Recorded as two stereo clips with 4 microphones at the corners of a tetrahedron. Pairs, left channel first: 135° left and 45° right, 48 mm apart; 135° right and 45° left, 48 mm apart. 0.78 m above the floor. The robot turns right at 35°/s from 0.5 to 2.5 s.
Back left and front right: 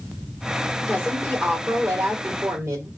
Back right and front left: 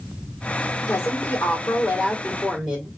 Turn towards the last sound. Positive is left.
turn(degrees=-55)